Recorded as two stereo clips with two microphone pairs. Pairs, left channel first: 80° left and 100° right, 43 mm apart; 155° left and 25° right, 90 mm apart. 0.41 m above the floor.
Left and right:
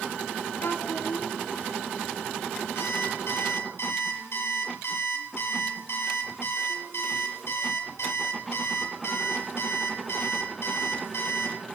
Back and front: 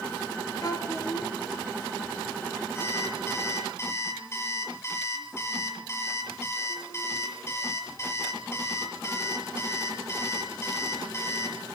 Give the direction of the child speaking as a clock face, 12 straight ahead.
8 o'clock.